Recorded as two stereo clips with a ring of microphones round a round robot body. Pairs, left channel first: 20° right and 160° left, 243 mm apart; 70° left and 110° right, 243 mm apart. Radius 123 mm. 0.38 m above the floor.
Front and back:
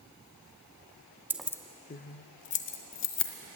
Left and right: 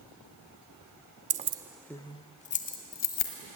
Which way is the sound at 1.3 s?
125° right.